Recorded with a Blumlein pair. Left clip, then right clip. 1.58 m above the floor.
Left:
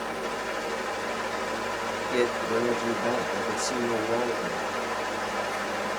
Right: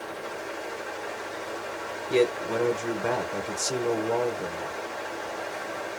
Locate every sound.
0.0 s a fan: 55° left, 0.9 m
2.1 s a man speaking: 10° right, 1.2 m